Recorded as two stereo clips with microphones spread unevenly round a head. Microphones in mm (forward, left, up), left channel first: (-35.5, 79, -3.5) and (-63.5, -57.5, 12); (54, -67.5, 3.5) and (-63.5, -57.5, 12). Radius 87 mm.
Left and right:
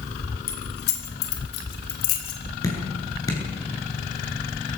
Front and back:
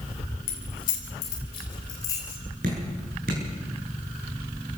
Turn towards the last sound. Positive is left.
turn(degrees=145)